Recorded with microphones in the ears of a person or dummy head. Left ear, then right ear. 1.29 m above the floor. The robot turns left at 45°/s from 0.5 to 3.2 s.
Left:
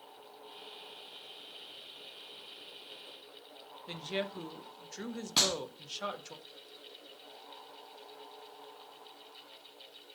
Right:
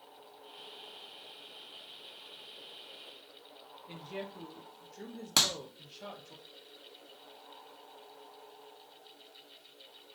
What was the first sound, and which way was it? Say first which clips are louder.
A woman speaking: left 6 dB; 55° left (ahead or behind).